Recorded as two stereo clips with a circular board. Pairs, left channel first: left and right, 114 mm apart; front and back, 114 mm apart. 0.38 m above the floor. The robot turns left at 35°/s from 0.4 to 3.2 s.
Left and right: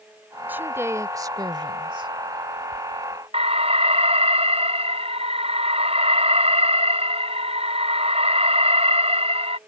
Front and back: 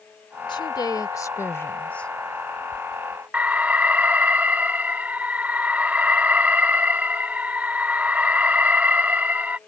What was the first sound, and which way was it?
A woman speaking, 20° right.